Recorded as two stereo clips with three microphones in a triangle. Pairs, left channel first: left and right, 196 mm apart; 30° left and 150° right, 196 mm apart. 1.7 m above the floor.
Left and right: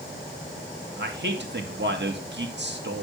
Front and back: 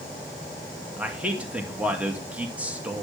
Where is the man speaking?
70° right, 2 m.